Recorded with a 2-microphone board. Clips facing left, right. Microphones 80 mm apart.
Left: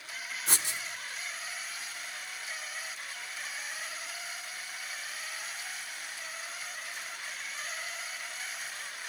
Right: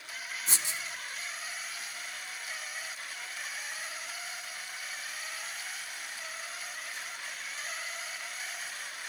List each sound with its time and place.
0.5 s writing: 60° left (ahead or behind), 0.9 m